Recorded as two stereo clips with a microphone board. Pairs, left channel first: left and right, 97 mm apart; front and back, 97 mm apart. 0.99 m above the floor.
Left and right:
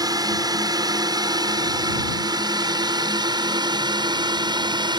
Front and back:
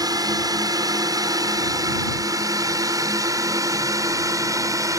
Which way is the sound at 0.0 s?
135° right.